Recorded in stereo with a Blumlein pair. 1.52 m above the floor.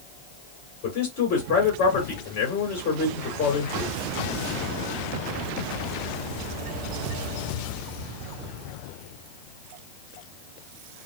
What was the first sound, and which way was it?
A man speaking, 45° left.